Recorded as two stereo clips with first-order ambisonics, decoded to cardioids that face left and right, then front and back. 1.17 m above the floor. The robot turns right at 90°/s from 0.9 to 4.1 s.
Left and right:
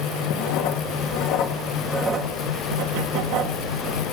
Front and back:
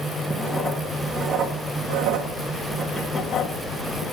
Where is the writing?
80° left, 1.8 m; by 4.1 s 5° left, 1.8 m.